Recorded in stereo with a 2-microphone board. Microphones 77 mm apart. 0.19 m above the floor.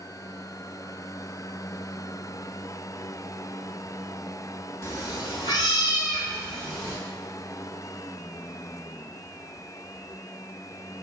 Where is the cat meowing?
40° left (ahead or behind), 0.5 m; by 7.0 s 75° left (ahead or behind), 2 m.